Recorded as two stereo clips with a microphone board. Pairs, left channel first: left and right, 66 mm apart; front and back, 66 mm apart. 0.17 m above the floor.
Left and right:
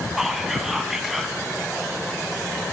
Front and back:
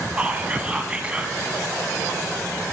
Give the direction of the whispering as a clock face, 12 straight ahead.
5 o'clock.